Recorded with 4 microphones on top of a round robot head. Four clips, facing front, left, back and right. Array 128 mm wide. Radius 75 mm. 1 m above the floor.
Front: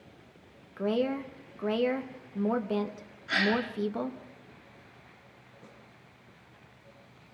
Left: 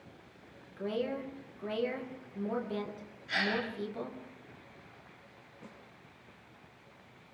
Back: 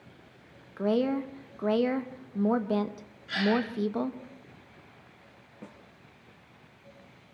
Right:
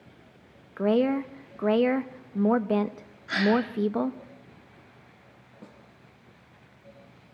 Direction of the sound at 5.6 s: 145° right.